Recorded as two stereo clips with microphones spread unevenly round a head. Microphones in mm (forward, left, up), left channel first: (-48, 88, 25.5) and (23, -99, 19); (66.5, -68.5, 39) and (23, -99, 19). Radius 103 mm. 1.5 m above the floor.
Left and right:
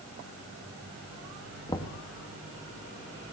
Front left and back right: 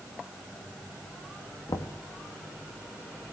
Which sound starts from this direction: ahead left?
Knocking, at 1.7 s.